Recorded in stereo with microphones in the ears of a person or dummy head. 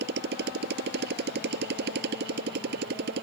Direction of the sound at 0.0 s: 60° right (ahead or behind).